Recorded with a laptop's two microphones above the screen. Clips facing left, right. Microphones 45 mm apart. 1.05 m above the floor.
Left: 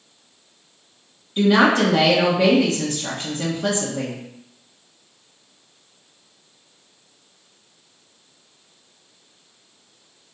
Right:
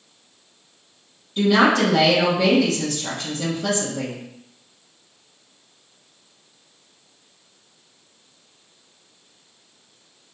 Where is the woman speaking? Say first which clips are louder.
Left 1 dB; 30° left (ahead or behind), 1.1 m.